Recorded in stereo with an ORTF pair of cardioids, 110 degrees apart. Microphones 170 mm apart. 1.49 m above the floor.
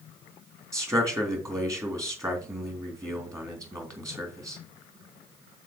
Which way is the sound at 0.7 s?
20° right.